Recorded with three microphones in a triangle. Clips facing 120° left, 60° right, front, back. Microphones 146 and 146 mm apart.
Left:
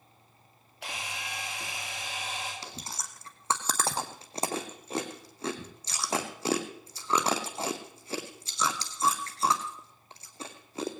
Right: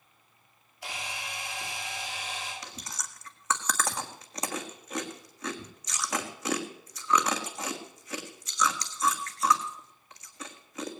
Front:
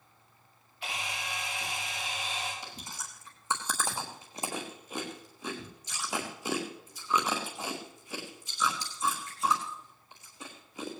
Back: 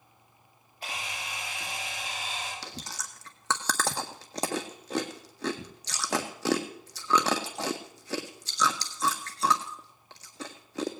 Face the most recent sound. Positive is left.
turn(degrees=180)